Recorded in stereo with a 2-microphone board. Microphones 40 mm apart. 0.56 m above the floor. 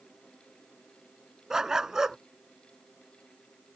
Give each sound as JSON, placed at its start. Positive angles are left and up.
{"t": 1.5, "sound": "a dog barking", "side_deg": -15}